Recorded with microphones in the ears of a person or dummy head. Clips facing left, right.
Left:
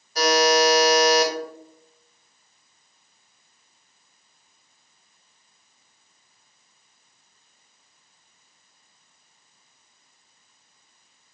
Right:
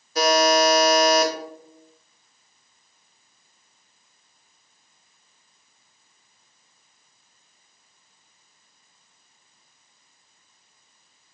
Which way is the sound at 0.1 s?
75° right (ahead or behind).